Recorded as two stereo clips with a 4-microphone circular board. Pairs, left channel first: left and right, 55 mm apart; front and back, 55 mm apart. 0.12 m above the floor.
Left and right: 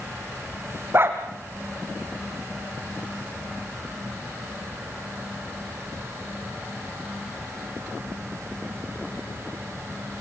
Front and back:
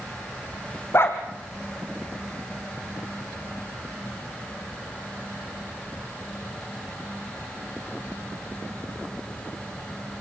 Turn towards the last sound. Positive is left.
turn(degrees=-45)